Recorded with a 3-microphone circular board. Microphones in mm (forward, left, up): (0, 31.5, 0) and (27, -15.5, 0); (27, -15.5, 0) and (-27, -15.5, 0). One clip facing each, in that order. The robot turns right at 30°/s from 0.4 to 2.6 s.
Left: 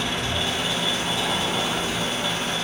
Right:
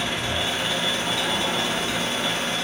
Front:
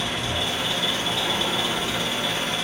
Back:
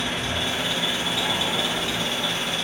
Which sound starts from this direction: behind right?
An engine running, at 0.0 s.